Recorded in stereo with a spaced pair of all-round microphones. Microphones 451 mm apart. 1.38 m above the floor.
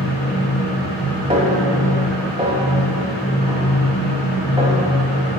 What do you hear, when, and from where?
0.0 s a fan: 65° left (ahead or behind), 3.5 m
1.3 s a snare drum: 15° right (ahead or behind), 2.5 m